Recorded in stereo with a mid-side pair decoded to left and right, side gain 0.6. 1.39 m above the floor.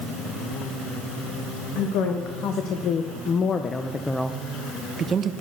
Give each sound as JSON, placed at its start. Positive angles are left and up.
{"t": 1.8, "sound": "a woman speaking", "azimuth_deg": 70, "distance_m": 1.7}